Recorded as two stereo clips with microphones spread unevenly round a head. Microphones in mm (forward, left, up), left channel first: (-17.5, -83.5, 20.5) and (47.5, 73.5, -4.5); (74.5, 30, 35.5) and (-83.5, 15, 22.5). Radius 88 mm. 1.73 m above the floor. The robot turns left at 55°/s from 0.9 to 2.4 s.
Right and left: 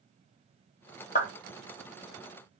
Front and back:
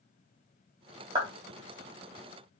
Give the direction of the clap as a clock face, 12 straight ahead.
4 o'clock.